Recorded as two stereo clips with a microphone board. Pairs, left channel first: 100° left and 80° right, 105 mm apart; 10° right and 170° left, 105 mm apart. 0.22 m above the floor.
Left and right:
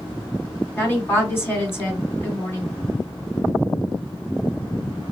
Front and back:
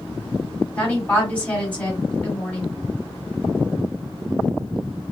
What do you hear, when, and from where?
0.8 s a woman speaking: 55° left, 1.8 m